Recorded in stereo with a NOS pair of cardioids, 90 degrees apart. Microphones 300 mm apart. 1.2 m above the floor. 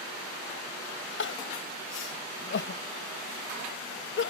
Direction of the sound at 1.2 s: 40° left.